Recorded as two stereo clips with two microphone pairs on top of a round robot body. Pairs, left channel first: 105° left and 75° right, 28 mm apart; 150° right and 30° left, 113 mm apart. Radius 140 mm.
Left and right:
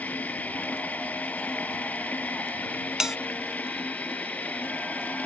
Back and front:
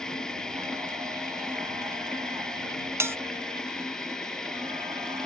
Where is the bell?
10° right.